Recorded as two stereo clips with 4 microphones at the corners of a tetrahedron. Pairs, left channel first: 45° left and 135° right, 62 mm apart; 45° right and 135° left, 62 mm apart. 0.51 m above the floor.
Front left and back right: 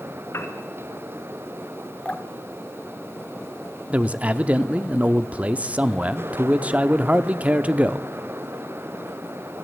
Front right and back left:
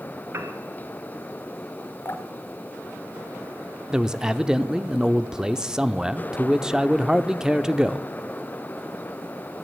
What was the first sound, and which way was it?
A piano, 90° left.